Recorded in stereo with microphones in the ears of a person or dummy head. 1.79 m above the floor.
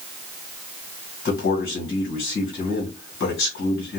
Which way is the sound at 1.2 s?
65° left (ahead or behind).